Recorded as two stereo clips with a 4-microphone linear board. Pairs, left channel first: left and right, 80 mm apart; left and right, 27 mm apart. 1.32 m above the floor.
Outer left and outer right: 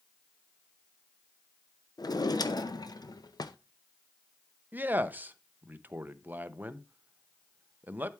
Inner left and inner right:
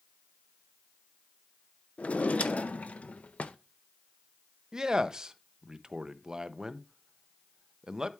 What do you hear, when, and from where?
2.0 s a drawer: 55° left (ahead or behind), 0.6 m
4.7 s a man speaking: 25° right (ahead or behind), 0.6 m